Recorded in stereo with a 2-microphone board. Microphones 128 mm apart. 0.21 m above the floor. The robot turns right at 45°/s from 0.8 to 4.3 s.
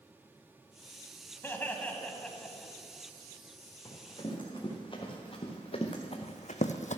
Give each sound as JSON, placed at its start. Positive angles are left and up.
{"t": 1.4, "sound": "laughter", "side_deg": 15, "distance_m": 1.2}
{"t": 3.9, "sound": "running footsteps", "side_deg": 20, "distance_m": 4.0}